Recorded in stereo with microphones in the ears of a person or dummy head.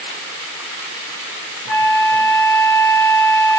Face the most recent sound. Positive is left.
turn(degrees=50)  # may be behind; listen again after turning